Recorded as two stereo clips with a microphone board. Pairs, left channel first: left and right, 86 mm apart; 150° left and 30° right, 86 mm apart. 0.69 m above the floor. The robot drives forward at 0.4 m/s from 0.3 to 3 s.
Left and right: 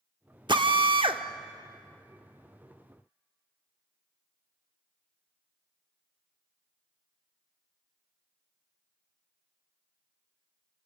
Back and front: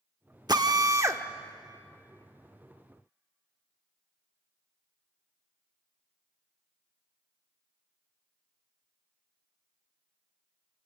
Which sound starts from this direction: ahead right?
A drill, at 0.5 s.